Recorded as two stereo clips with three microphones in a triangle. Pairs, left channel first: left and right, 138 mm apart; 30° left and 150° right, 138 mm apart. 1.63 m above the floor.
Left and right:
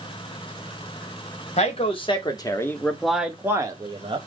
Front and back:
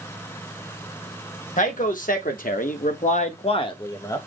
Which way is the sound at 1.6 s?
50° left.